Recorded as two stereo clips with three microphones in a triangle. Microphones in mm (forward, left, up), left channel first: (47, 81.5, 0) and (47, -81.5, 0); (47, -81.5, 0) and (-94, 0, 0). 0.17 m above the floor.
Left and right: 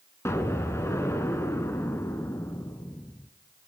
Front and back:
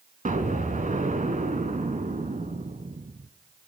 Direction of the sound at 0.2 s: 160° left.